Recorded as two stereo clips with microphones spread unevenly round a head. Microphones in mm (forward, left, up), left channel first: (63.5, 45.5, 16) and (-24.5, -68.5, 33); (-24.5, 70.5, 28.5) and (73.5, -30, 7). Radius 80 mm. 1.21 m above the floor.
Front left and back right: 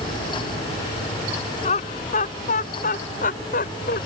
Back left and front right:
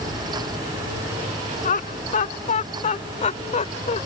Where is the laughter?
105° left; by 4.0 s 90° left.